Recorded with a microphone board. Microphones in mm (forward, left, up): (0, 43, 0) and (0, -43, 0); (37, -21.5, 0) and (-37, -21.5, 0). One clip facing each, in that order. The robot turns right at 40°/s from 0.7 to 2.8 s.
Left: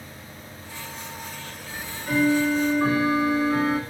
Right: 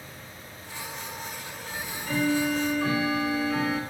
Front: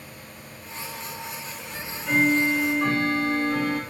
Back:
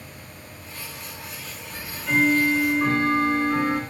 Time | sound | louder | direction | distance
1.7 | ticking | left 5 dB, back 1 dB | 75° left | 1.4 m